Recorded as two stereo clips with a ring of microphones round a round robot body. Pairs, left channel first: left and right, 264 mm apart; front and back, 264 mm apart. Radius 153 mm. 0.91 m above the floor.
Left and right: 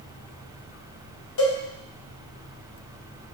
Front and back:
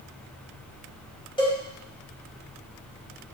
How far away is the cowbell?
About 2.0 m.